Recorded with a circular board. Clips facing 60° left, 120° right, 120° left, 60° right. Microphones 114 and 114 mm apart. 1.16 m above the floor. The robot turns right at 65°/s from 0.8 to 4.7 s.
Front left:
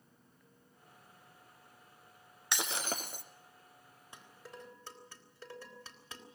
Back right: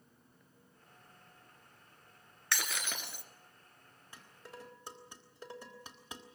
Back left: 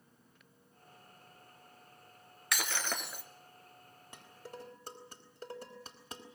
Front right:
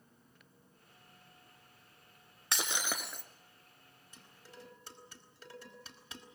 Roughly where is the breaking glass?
Ahead.